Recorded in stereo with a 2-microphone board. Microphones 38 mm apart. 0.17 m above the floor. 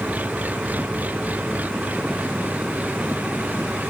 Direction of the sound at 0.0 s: 45° right (ahead or behind).